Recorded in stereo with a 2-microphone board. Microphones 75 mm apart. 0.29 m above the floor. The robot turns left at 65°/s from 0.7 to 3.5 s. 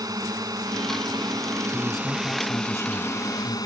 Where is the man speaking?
165° right; by 3.6 s 75° left.